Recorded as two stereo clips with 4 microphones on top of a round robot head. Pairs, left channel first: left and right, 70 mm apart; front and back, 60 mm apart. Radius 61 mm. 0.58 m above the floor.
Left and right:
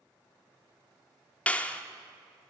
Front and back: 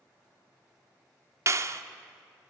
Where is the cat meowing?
No cat meowing in this recording.